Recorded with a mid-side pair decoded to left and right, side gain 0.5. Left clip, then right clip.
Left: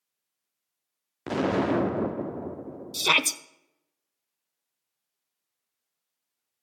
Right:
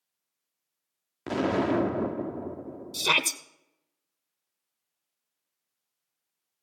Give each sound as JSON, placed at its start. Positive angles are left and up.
{"t": 1.3, "sound": "an explosion", "azimuth_deg": 5, "distance_m": 0.6}
{"t": 2.9, "sound": "a shout", "azimuth_deg": 15, "distance_m": 1.1}